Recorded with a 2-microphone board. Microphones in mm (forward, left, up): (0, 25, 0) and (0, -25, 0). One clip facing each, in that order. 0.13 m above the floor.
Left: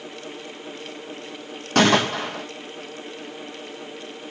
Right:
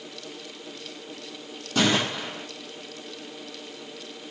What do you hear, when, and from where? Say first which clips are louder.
1.8 s a gunshot: left 6 dB; 60° left (ahead or behind), 1.0 m